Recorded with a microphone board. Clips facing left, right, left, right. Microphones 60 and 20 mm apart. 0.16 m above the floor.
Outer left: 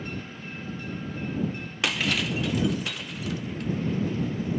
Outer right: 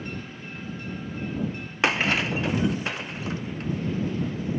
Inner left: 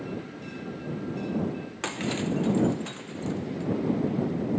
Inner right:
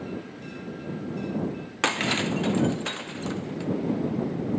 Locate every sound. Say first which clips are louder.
1.8 s breaking glass: outer right 4 dB, inner right 5 dB; 35° right (ahead or behind)